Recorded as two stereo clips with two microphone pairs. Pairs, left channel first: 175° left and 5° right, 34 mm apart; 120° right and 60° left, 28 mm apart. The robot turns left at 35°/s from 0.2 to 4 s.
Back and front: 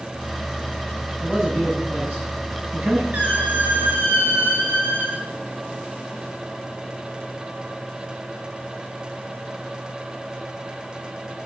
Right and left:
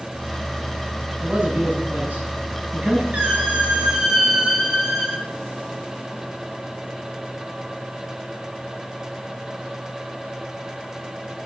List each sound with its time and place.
1.2 s a man speaking: 70° left, 7.5 m; by 3.0 s 5° left, 7.5 m
3.1 s a squeak: 25° left, 7.5 m; by 5.2 s 5° right, 7.5 m